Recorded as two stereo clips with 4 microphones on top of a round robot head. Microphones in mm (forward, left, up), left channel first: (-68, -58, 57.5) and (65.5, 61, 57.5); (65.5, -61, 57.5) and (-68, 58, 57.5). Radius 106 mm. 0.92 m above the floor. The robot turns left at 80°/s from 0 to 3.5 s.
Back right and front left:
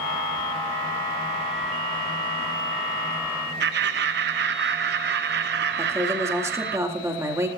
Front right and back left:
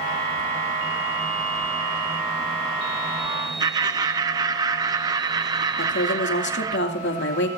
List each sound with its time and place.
3.6 s laughter: 70° left, 1.0 m
5.8 s a woman speaking: 35° right, 2.5 m